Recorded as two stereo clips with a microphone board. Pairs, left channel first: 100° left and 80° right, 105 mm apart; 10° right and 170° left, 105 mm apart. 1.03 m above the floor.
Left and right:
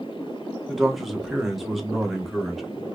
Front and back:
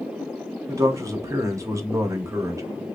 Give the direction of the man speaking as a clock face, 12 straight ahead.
6 o'clock.